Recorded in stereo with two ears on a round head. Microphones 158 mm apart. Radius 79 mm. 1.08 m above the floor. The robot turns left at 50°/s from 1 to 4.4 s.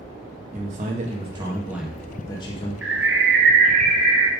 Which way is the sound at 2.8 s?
85° right.